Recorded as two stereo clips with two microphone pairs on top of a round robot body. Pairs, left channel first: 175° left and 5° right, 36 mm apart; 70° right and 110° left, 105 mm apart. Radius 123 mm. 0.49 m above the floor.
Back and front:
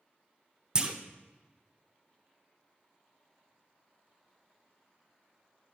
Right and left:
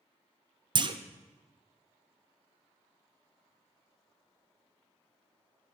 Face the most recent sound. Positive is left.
turn(degrees=65)